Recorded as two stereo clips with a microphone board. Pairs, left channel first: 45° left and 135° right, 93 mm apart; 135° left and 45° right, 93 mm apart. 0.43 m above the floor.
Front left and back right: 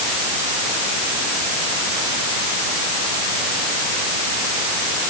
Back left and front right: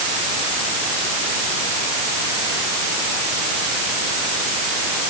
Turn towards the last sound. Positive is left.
No sound to turn to.